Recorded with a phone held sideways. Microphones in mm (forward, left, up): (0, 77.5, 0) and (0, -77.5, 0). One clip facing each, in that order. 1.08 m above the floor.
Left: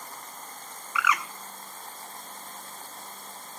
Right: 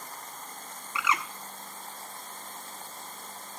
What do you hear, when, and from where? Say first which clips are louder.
0.9 s a bird: left 2 dB; 25° right (ahead or behind), 1.0 m